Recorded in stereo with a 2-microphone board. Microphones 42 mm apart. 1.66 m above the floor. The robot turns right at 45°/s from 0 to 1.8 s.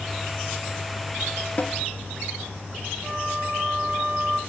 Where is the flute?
10° right (ahead or behind), 1.6 m.